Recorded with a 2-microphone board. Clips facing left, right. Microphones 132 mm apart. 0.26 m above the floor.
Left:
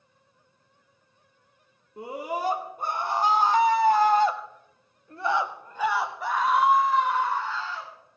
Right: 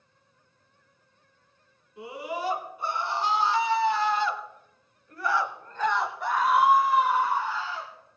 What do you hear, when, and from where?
2.0 s a scream: 45° left (ahead or behind), 3 m; by 7.9 s 15° right (ahead or behind), 3 m